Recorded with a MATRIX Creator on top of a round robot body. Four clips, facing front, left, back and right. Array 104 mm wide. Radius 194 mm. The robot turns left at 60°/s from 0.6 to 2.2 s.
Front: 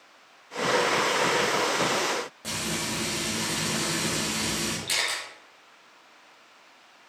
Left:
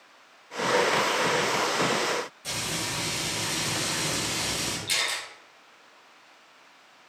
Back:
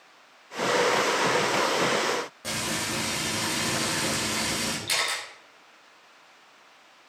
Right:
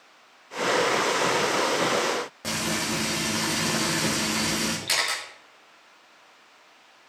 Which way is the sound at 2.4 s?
95° right.